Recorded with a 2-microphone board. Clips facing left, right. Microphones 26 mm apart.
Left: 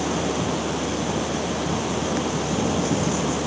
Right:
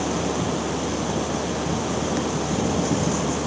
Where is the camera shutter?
I don't hear a camera shutter.